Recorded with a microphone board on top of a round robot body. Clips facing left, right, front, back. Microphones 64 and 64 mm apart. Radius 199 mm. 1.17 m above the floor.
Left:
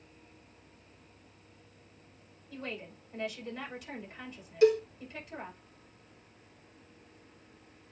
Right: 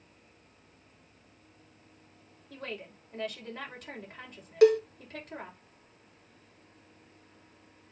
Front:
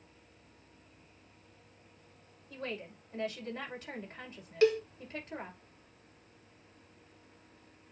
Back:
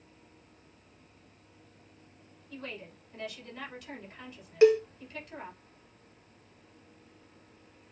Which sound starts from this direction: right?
A cowbell, at 4.6 s.